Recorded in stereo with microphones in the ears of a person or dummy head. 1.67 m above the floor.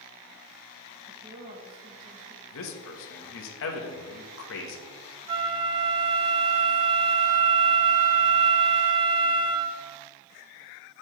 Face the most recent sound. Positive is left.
turn(degrees=-30)  # may be behind; listen again after turning